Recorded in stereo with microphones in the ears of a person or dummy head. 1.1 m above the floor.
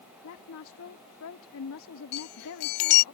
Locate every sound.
0.2 s a woman speaking: 70° left (ahead or behind)
2.1 s a chime: 55° left (ahead or behind)